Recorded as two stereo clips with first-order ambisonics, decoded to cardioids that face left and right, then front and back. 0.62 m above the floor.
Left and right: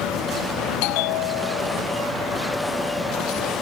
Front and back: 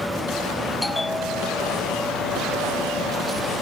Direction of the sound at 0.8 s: 85° left.